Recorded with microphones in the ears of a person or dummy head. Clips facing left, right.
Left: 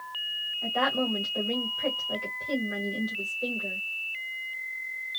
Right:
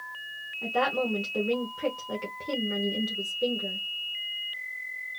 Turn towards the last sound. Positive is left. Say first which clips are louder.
# right 1 dB
turn(degrees=-65)  # may be behind; listen again after turning